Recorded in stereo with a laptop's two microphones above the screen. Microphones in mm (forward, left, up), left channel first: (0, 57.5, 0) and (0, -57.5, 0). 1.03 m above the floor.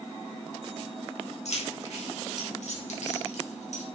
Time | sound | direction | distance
1.4 | keys jangling | 70° left (ahead or behind) | 4 m